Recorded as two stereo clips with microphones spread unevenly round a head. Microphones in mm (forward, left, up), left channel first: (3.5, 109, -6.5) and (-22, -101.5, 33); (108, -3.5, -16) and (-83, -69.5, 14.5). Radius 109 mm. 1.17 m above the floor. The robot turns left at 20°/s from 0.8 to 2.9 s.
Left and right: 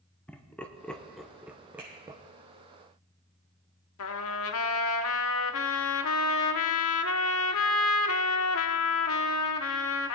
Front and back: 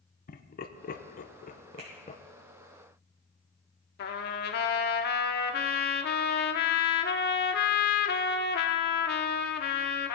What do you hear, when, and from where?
0.3 s laughter: 10° left, 0.9 m; by 2.2 s 20° right, 0.9 m
1.8 s a finger snap: straight behind, 7 m
4.0 s a trumpet: 65° left, 0.9 m